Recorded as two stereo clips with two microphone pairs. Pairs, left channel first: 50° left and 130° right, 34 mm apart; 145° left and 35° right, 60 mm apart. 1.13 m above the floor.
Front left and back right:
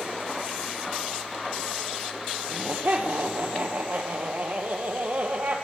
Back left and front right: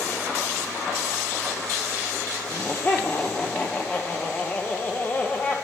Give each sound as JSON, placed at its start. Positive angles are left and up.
{"t": 2.4, "sound": "laughter", "azimuth_deg": -155, "distance_m": 0.8}